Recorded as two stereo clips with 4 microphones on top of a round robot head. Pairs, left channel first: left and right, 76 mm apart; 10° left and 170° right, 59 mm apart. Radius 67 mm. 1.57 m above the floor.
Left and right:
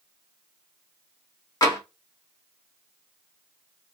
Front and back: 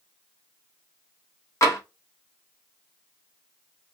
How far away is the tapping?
About 1.5 m.